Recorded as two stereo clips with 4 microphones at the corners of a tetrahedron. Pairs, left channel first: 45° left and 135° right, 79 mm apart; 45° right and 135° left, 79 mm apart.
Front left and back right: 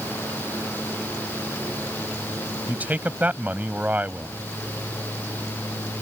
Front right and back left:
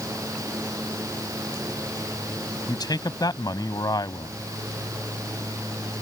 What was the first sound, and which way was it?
A man speaking, 70° right.